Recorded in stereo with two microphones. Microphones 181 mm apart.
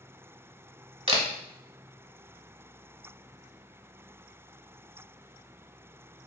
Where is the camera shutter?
30° right (ahead or behind), 0.6 m.